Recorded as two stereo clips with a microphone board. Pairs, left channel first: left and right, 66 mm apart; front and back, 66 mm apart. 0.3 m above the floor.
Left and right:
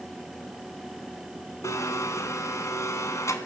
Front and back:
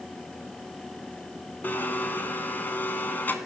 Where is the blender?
60° left, 2.5 m.